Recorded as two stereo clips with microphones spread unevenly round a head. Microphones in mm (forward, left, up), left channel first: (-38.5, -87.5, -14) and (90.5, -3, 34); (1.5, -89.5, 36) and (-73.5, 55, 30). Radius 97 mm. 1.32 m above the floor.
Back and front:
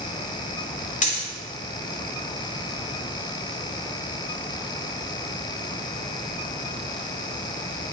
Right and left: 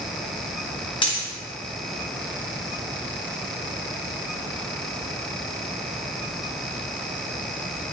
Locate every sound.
1.0 s a dropped coin: 110° right, 0.7 m